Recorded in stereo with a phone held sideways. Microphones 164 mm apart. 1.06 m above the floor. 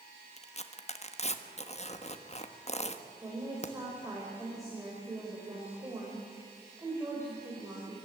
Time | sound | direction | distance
0.4 | tearing paper | 40° left (ahead or behind) | 1.3 m
3.2 | a woman speaking | 20° right (ahead or behind) | 5 m